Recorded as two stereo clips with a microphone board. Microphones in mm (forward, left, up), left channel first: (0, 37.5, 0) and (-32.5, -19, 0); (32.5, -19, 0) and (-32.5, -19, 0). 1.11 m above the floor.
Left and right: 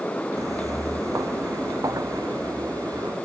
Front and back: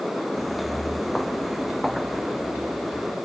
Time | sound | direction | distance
0.4 | footsteps | 90° right | ?